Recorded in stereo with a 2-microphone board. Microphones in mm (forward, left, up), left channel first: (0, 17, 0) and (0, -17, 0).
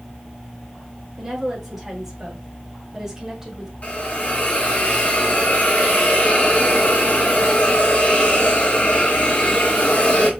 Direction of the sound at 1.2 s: 5° right (ahead or behind).